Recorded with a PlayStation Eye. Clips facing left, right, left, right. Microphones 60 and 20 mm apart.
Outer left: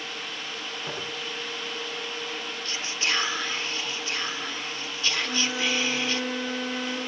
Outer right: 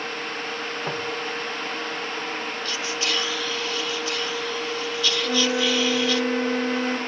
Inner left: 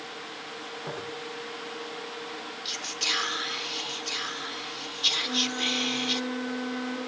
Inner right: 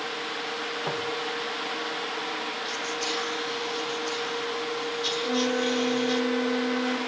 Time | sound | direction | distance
0.9 | footsteps | 30° right (ahead or behind) | 5.5 m
2.6 | whispering | 30° left (ahead or behind) | 1.0 m
5.2 | a flute | 30° right (ahead or behind) | 1.7 m